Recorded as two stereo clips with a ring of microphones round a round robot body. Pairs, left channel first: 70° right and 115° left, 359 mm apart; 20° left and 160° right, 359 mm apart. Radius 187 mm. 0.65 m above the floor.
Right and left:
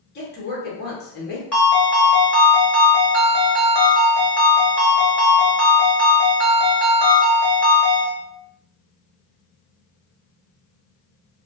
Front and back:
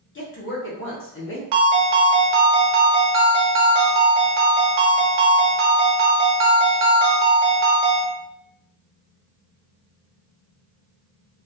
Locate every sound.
0.1 s a woman speaking: 20° right, 1.1 m
1.5 s a ringtone: 155° right, 0.9 m